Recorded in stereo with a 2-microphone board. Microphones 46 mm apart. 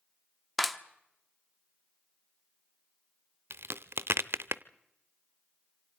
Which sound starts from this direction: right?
A crack, at 3.5 s.